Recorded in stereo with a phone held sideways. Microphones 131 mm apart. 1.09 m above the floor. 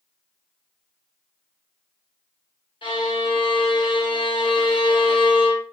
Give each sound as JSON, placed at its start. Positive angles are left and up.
{"t": 2.8, "sound": "a violin", "side_deg": 40, "distance_m": 0.8}